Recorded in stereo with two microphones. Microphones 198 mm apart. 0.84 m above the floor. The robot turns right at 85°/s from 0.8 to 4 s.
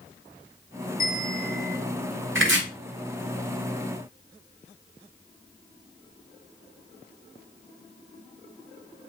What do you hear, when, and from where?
1.0 s a bell: 130° left, 1.6 m; by 1.8 s 165° right, 1.6 m
2.4 s chopping: 80° right, 1.1 m; by 2.6 s 70° right (ahead or behind), 1.1 m